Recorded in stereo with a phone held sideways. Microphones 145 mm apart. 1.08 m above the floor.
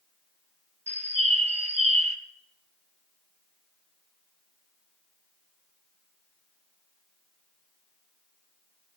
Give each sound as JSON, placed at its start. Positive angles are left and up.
{"t": 0.9, "sound": "a bird", "side_deg": -50, "distance_m": 0.8}